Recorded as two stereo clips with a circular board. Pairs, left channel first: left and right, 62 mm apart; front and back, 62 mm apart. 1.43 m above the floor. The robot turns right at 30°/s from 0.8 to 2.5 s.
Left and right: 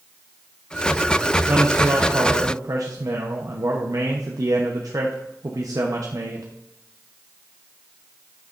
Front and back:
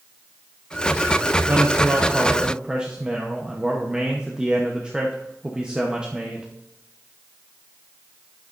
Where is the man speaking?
135° right, 0.9 m; by 6.5 s 105° right, 0.9 m.